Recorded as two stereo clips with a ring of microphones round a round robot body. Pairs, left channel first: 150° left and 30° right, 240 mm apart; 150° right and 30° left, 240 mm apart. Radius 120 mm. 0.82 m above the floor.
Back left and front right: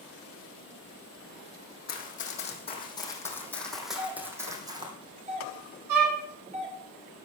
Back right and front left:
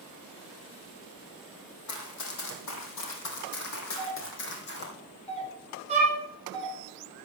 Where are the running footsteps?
155° right, 3 m; by 4.9 s 100° right, 3 m.